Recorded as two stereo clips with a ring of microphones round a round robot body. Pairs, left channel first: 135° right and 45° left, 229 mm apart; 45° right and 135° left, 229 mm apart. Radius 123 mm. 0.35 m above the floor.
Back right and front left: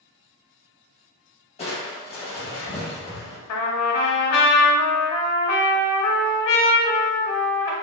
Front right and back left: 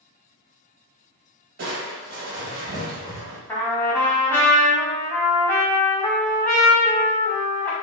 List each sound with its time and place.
1.6 s crushing: 165° left, 1.1 m
3.5 s a trumpet: 125° right, 0.8 m